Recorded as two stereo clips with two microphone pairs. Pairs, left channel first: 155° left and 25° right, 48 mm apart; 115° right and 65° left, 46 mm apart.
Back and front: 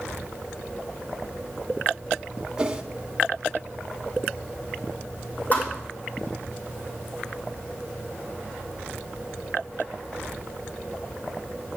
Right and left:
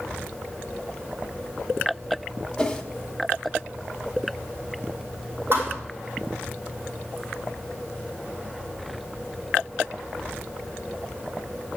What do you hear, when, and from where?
2.6 s a whoosh: 75° right, 0.9 m
5.5 s a thud: 105° left, 2 m